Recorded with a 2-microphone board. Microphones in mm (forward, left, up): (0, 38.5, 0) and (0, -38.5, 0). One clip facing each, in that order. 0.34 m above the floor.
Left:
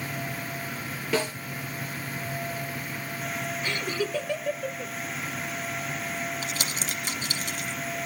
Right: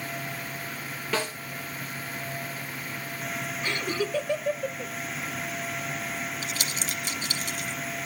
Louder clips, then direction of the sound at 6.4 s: Left 1 dB; 50° left (ahead or behind).